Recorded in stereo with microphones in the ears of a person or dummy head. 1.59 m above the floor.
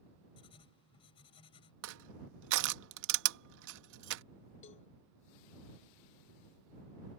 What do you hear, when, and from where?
0.4 s writing: 25° left (ahead or behind)
1.8 s crushing: 70° right (ahead or behind)
4.6 s a cowbell: 30° left (ahead or behind)